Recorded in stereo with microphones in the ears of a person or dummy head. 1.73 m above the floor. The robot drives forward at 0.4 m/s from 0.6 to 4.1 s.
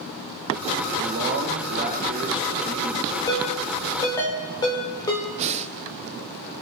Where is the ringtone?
25° left (ahead or behind), 2.5 m; by 5.3 s 20° left (ahead or behind), 3 m.